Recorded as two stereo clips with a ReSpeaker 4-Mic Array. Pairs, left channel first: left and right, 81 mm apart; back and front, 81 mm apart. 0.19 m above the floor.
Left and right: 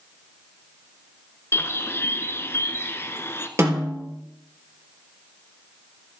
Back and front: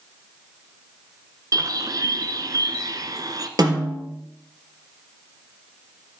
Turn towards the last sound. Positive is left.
turn(degrees=-35)